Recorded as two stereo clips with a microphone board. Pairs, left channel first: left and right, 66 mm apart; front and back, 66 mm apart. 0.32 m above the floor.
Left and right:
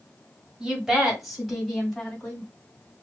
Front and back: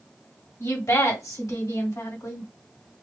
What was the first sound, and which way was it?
A woman speaking, 15° right.